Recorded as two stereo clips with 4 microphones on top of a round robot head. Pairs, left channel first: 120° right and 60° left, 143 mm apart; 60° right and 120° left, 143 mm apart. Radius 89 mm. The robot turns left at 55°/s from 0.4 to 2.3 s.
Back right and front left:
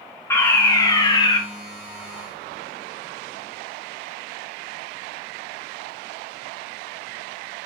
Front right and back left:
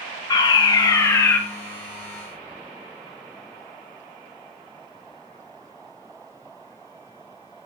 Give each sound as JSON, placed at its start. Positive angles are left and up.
{"t": 0.3, "sound": "a fire alarm", "azimuth_deg": -65, "distance_m": 1.5}